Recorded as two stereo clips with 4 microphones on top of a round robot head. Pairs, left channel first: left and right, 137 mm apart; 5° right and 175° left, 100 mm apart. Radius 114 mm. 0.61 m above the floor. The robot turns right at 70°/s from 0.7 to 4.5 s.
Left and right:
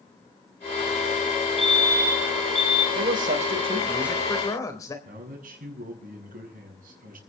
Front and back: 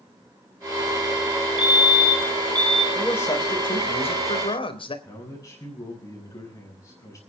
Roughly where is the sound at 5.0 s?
Ahead right.